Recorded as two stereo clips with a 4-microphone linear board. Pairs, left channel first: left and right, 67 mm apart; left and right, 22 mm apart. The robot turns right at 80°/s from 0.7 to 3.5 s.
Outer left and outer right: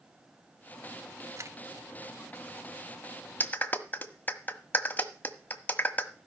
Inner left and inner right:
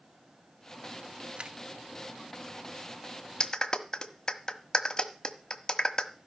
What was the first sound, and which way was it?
A camera shutter, 50° right (ahead or behind).